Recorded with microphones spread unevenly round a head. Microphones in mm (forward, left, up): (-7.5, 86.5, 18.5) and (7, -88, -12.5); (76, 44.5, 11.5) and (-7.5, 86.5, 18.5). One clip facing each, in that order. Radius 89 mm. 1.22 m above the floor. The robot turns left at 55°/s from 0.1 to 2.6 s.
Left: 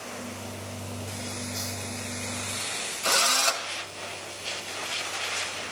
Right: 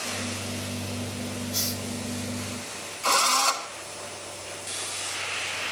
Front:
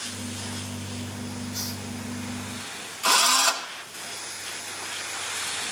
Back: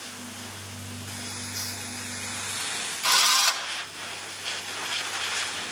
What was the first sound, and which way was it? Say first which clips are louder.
A hiss: right 3 dB, front 4 dB; 115° right.